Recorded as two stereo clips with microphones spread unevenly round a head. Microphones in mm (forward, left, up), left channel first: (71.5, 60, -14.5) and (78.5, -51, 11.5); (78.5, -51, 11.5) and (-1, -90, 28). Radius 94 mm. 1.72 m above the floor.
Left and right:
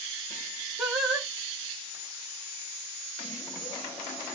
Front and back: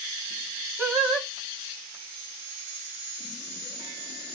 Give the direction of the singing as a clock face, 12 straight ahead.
4 o'clock.